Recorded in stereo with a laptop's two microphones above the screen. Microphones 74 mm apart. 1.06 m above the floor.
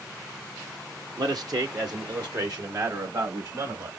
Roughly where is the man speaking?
Right.